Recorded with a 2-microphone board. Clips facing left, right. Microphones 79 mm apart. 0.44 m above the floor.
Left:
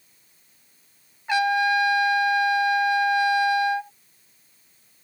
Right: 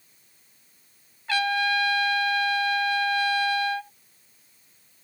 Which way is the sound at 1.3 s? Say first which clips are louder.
Left 4 dB; 20° left (ahead or behind).